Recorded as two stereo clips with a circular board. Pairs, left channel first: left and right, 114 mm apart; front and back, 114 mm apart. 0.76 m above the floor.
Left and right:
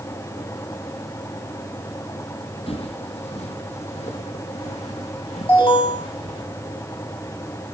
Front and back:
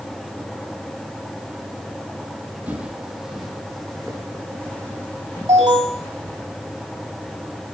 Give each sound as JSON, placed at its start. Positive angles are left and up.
{"t": 2.7, "sound": "footsteps", "azimuth_deg": 105, "distance_m": 1.6}
{"t": 5.5, "sound": "an alarm", "azimuth_deg": 125, "distance_m": 6.5}